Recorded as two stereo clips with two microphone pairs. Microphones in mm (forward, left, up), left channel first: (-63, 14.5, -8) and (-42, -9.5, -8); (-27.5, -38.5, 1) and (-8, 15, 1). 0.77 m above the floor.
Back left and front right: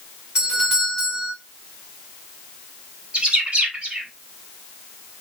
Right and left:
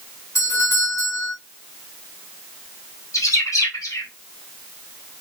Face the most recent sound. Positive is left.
turn(degrees=-105)